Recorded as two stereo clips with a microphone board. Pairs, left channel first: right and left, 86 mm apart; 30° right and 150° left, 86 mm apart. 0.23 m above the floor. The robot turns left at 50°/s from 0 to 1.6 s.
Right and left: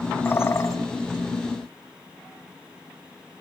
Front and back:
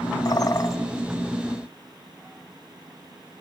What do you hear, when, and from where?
0.2 s a bird: 35° right, 2 m; by 0.8 s 60° right, 2 m